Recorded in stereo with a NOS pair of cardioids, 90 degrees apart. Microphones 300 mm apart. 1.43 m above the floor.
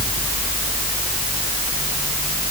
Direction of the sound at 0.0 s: 20° left.